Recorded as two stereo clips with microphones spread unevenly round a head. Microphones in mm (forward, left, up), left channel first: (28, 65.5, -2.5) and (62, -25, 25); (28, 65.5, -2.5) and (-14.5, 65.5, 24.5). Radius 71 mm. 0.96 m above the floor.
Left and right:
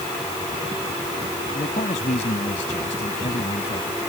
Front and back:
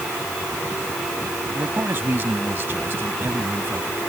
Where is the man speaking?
155° left.